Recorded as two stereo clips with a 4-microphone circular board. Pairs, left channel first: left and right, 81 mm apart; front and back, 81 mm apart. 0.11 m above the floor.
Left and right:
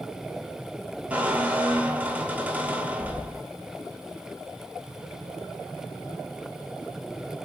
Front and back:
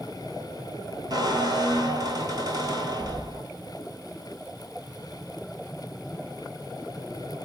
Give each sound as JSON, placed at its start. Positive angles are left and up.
{"t": 1.1, "sound": "a squeak", "azimuth_deg": -160, "distance_m": 0.9}